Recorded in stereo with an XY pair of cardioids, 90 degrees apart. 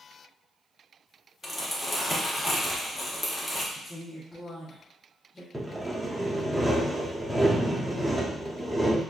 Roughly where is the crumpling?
Ahead.